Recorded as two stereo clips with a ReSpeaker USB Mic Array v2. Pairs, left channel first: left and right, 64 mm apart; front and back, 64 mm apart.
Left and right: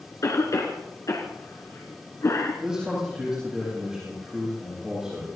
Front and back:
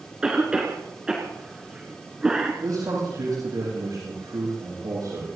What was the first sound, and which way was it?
A cough, 105° left.